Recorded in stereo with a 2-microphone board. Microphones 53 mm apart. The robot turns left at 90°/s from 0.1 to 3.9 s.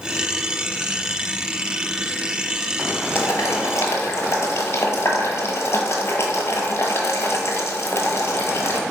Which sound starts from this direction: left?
Boiling, at 3.1 s.